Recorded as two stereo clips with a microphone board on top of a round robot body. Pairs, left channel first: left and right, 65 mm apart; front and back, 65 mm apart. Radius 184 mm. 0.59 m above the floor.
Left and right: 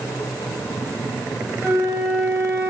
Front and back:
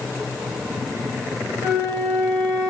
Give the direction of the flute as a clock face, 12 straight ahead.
4 o'clock.